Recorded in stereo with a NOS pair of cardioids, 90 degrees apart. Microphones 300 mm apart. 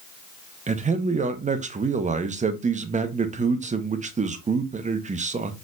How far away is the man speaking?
About 0.8 m.